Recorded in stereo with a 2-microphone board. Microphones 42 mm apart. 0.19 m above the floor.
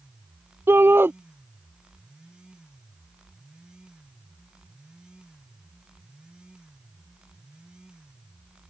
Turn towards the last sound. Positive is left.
turn(degrees=-65)  # may be behind; listen again after turning